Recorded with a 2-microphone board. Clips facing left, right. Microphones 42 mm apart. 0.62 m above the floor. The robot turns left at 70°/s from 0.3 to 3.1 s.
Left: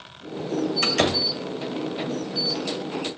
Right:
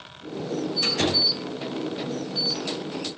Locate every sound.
0.8 s a door slam: 80° left, 1.7 m; by 1.2 s 60° left (ahead or behind), 1.7 m